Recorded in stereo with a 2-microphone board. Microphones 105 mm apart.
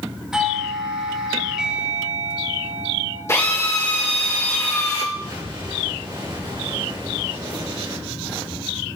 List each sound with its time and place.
0.3 s a doorbell: 5° right (ahead or behind), 3 m
3.3 s a drill: 25° left (ahead or behind), 2.5 m
5.1 s an explosion: 50° right (ahead or behind), 5 m